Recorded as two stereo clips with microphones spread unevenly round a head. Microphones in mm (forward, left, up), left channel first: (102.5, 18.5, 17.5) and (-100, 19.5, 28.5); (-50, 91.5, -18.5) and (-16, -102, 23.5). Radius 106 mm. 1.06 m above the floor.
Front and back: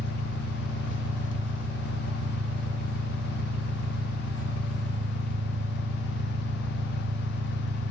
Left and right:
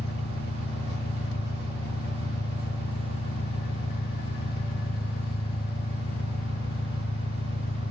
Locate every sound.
0.0 s an engine running: 55° left, 0.7 m